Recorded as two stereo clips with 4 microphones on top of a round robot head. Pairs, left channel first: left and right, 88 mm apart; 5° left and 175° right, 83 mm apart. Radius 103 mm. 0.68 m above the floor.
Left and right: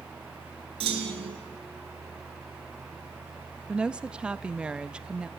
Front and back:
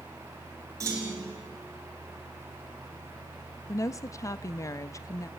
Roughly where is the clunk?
Behind right.